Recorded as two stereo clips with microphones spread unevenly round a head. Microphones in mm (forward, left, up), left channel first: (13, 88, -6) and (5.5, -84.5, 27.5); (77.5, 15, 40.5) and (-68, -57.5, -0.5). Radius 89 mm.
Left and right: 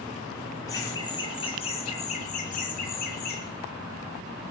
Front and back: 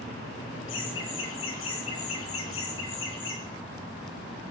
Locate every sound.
0.7 s laughter: 15° left, 4.5 m; by 3.4 s 55° left, 4.5 m